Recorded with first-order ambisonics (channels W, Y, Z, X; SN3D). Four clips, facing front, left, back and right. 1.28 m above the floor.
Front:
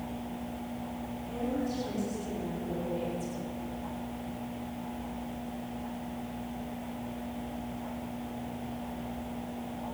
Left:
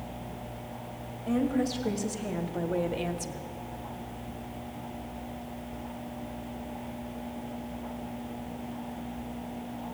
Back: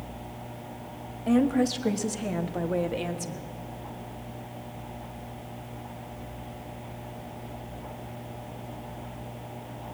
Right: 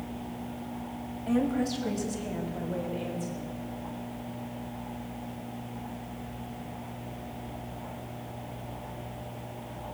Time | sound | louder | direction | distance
1.3 | a woman speaking | even, back 11 dB | 175° right | 1.9 m